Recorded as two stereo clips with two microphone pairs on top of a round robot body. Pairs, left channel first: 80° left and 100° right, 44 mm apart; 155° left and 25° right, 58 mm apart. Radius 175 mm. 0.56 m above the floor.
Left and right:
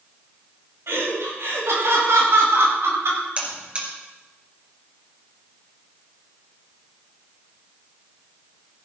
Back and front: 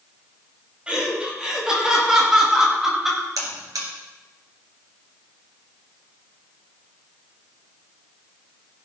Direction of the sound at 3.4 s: 40° right.